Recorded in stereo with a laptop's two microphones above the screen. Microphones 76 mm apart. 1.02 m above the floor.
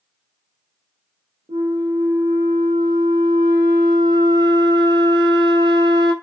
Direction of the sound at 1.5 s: 60° right (ahead or behind).